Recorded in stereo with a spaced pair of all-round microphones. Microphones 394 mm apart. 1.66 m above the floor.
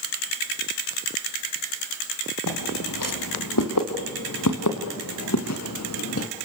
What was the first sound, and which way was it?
Footsteps, 55° left (ahead or behind).